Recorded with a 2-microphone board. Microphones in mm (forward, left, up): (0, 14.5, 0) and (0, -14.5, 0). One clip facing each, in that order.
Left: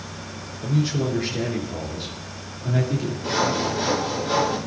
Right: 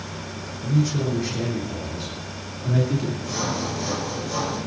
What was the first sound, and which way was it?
A man speaking, 30° left (ahead or behind).